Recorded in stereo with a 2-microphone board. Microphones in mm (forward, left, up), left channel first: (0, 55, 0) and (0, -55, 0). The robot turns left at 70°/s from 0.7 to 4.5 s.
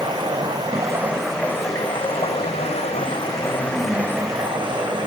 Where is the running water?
140° right, 1.0 m; by 5.1 s 45° right, 1.0 m.